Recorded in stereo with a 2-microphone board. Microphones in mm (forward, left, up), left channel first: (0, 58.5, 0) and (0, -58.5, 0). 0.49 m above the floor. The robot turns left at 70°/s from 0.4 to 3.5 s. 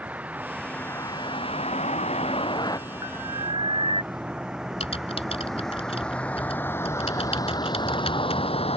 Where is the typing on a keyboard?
60° left (ahead or behind).